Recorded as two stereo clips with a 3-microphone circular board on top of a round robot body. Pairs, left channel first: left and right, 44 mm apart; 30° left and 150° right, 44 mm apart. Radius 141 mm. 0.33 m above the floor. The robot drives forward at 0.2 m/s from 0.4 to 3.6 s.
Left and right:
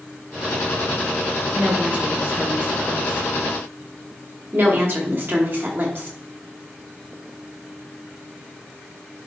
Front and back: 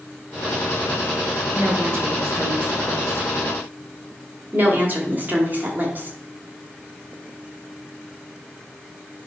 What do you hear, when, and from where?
1.5 s a woman speaking: 130° right, 2.5 m; by 3.3 s 135° right, 2.5 m
4.5 s a woman speaking: 110° right, 2.5 m